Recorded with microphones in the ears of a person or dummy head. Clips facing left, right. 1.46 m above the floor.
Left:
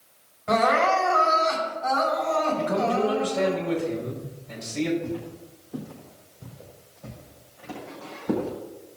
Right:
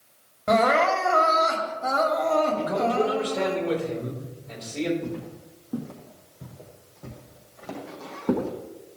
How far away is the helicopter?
I don't hear a helicopter.